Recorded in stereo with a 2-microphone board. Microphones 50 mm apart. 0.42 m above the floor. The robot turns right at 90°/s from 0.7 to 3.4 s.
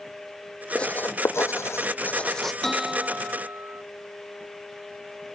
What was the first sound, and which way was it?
Writing, 20° left (ahead or behind).